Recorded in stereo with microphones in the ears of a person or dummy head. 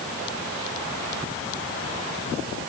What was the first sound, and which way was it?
Only background noise.